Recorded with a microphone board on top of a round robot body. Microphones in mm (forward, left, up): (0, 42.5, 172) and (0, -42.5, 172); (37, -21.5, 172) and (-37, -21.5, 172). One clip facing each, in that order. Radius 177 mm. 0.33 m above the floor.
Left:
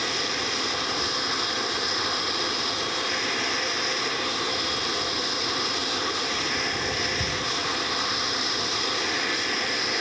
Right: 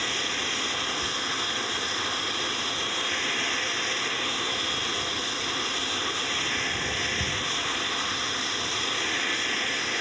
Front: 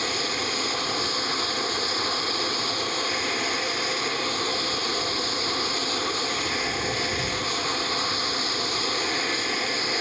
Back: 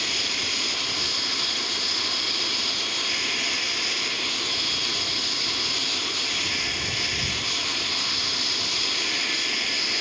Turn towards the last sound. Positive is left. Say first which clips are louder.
# left 2 dB, front 4 dB
turn(degrees=20)